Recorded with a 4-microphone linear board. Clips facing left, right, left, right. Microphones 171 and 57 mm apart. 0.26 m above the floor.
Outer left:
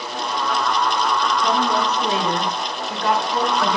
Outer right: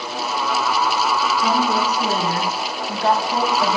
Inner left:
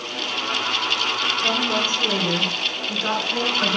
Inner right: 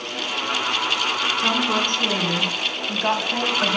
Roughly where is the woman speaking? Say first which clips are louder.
Outer right 1 dB, inner right 2 dB; right.